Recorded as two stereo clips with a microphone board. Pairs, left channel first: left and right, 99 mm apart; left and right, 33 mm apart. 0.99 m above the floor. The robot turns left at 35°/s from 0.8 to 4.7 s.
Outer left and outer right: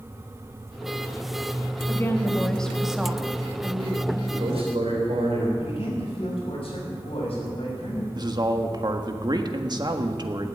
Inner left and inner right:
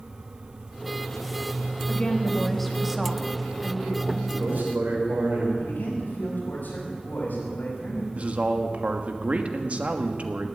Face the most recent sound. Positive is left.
turn(degrees=-45)  # may be behind; listen again after turning